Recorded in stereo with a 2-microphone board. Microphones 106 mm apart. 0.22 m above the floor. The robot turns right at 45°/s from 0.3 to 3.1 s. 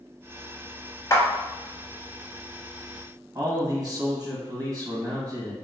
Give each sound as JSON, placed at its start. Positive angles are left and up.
{"t": 1.1, "sound": "a clap", "side_deg": 30, "distance_m": 0.8}
{"t": 3.4, "sound": "a man speaking", "side_deg": -40, "distance_m": 1.7}